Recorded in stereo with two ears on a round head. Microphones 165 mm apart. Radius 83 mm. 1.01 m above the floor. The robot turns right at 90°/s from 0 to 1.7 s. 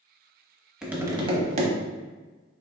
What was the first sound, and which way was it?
Tapping, 175° right.